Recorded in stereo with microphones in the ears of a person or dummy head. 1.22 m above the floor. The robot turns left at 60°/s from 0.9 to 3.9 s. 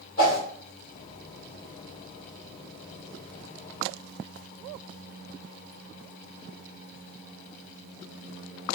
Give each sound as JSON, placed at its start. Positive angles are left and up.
{"t": 0.2, "sound": "a whoosh", "side_deg": 35, "distance_m": 1.8}